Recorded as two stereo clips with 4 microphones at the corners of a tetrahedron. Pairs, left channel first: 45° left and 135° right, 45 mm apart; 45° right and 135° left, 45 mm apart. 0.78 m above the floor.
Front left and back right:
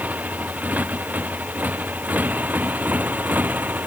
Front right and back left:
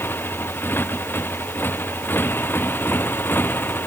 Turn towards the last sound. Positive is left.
turn(degrees=-85)